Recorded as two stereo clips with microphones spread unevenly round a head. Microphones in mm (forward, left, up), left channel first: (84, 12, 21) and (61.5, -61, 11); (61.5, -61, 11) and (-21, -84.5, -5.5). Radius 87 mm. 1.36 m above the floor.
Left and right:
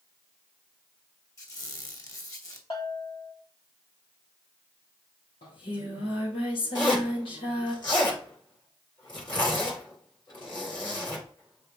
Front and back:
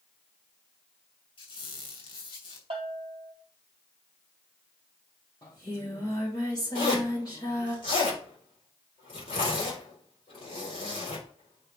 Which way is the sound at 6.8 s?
50° left.